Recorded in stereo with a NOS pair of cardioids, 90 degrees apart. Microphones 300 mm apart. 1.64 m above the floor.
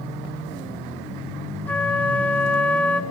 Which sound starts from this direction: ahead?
A flute, at 1.7 s.